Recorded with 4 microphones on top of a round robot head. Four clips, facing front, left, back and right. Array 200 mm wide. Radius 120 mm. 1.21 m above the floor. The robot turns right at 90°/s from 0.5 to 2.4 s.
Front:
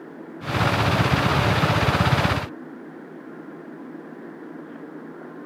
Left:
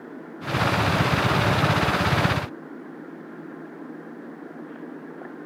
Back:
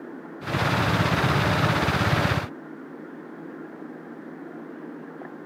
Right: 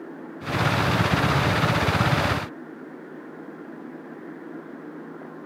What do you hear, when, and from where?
Only background noise.